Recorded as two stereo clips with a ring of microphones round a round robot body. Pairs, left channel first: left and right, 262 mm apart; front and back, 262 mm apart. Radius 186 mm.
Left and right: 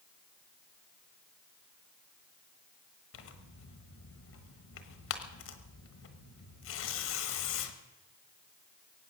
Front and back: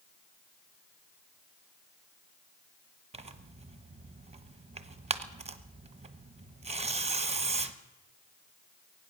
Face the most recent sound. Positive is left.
turn(degrees=120)